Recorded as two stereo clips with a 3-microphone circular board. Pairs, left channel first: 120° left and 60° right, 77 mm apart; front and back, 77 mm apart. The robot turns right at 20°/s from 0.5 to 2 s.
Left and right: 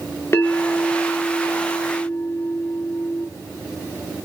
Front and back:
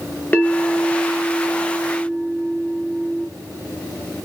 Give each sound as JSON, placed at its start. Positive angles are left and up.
{"t": 0.3, "sound": "a bell", "azimuth_deg": 65, "distance_m": 0.7}